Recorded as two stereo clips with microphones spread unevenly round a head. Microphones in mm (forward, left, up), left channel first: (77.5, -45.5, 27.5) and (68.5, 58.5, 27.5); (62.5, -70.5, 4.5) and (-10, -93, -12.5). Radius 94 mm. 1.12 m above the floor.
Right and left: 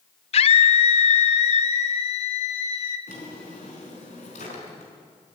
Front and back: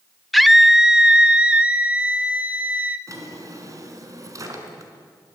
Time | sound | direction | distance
0.3 | a scream | 75° right | 0.7 m
3.1 | a drawer | 120° right | 4 m